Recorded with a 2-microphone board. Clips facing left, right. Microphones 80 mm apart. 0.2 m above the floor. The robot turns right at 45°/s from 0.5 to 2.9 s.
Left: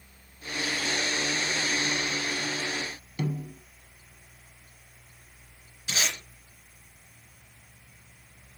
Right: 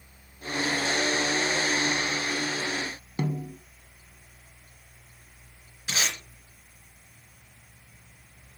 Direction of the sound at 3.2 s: 35° right (ahead or behind).